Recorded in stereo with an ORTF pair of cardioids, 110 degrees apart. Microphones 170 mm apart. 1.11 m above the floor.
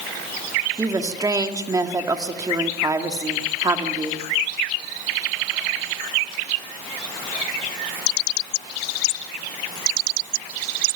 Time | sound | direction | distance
0.8 | a woman speaking | 20° right | 2.5 m